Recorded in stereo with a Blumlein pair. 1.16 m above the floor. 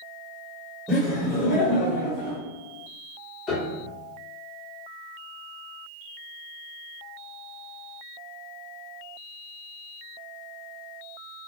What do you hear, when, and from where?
0.9 s laughter: 10° left, 1.0 m; by 2.4 s 55° left, 1.2 m
3.5 s a piano: 25° left, 0.9 m